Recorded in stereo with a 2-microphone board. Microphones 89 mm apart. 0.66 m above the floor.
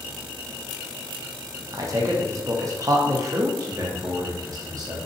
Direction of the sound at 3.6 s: 40° right (ahead or behind).